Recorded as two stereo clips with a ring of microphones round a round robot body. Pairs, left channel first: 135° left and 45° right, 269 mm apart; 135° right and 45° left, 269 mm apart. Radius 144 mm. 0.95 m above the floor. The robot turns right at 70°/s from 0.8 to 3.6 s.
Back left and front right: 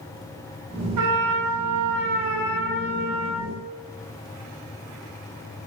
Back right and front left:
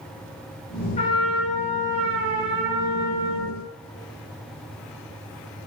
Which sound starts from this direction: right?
A trumpet, at 1.0 s.